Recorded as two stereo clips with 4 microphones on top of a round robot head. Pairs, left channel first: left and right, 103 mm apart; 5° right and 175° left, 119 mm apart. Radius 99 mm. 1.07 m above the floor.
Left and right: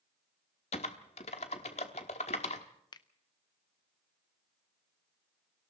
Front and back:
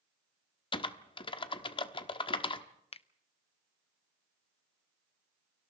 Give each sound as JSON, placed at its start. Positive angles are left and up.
{"t": 0.7, "sound": "typing on a keyboard", "azimuth_deg": 45, "distance_m": 1.1}
{"t": 2.9, "sound": "a finger snap", "azimuth_deg": 35, "distance_m": 0.7}